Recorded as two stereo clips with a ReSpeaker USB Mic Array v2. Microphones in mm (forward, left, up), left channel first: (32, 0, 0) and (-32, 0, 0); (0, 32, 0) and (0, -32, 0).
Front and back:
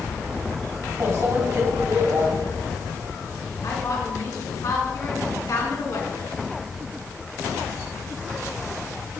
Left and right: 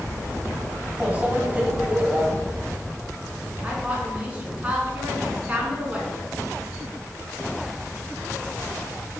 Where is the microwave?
155° right, 1.6 m.